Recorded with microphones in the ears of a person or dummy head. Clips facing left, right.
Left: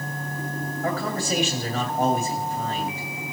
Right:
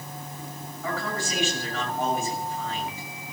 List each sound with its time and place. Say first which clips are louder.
0.8 s a man speaking: left 3 dB; 40° left (ahead or behind), 2.5 m